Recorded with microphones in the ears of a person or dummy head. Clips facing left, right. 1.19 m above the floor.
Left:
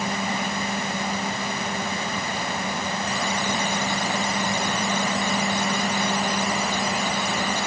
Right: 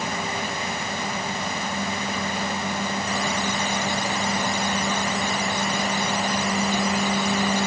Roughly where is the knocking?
I don't hear knocking.